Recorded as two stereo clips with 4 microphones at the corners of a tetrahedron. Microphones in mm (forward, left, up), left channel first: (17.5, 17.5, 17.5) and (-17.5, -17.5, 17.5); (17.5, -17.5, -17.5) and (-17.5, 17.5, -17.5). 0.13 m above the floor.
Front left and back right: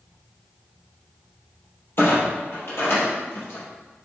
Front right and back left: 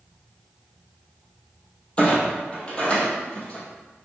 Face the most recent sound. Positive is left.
turn(degrees=20)